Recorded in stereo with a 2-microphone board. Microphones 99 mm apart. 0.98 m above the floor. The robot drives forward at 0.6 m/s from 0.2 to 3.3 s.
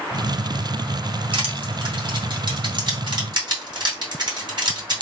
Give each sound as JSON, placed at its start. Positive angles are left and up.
{"t": 1.3, "sound": "crushing", "side_deg": -70, "distance_m": 3.0}